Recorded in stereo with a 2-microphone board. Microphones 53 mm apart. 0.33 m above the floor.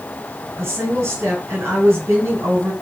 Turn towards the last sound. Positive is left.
turn(degrees=-45)  # may be behind; listen again after turning